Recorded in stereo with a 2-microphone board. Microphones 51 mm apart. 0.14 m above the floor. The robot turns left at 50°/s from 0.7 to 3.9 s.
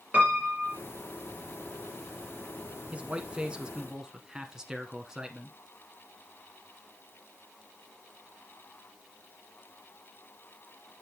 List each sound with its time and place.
0.1 s a piano: 40° right (ahead or behind), 3 m; by 0.8 s 35° right (ahead or behind), 3 m
2.9 s a man speaking: 25° right (ahead or behind), 1.1 m; by 5.6 s 15° right (ahead or behind), 1.1 m